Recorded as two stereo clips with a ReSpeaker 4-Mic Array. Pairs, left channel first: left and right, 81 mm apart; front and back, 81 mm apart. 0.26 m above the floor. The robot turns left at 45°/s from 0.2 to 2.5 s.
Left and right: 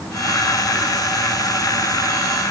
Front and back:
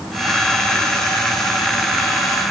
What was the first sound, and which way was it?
Only background noise.